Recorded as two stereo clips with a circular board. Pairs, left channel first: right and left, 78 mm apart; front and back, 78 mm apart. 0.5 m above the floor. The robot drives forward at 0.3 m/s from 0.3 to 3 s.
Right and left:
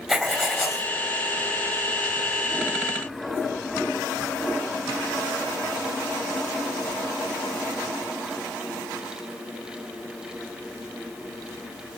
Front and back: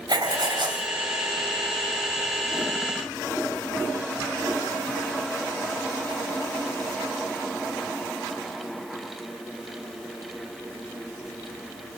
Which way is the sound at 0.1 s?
175° left.